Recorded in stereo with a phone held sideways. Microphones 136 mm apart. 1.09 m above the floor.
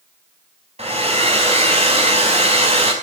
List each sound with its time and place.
0.8 s a hair dryer: 50° right (ahead or behind), 4.5 m